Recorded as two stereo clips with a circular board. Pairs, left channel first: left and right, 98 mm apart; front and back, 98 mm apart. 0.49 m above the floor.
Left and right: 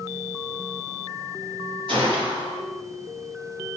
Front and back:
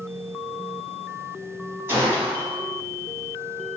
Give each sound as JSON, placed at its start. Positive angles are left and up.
{"t": 1.9, "sound": "a gunshot", "azimuth_deg": -115, "distance_m": 1.0}